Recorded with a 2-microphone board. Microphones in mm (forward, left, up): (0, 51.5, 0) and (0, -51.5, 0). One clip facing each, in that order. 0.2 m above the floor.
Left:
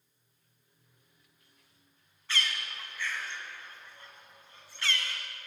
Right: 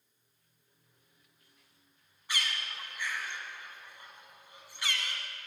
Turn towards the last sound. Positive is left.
turn(degrees=-15)  # may be behind; listen again after turning